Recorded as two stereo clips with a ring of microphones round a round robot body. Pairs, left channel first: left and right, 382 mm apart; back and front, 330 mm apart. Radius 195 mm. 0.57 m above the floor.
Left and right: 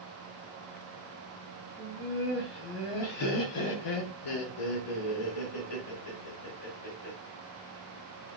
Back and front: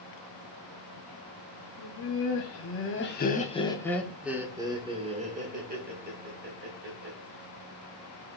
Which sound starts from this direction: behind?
Laughter, at 1.8 s.